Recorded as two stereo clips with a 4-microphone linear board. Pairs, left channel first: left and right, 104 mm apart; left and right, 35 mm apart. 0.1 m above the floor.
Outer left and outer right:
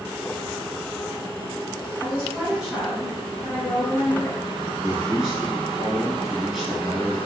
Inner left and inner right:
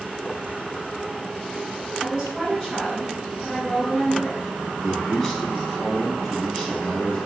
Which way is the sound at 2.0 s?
25° right (ahead or behind).